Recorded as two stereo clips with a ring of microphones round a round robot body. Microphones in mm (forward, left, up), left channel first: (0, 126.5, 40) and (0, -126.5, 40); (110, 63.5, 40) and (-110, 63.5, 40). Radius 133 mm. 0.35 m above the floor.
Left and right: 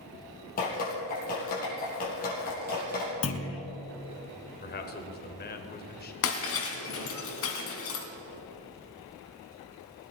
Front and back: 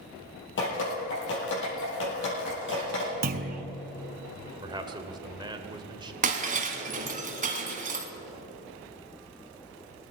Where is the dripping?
35° left, 5 m.